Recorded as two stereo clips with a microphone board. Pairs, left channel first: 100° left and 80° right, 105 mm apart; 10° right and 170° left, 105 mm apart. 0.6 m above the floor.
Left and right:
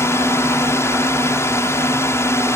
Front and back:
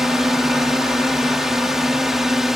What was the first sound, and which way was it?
A drone, 85° left.